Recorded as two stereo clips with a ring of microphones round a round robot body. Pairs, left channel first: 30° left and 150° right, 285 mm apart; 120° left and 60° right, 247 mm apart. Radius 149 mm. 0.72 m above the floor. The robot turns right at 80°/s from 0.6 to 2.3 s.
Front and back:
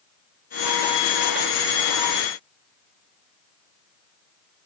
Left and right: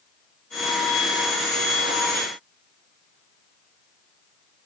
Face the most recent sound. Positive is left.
No sound to turn to.